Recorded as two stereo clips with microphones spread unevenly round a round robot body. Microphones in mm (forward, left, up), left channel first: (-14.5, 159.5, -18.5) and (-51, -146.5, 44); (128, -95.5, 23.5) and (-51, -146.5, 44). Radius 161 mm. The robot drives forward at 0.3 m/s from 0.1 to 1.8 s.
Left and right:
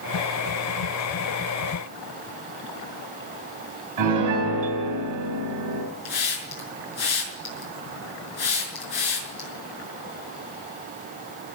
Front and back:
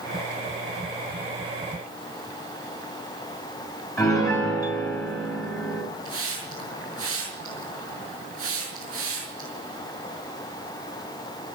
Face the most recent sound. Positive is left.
turn(degrees=95)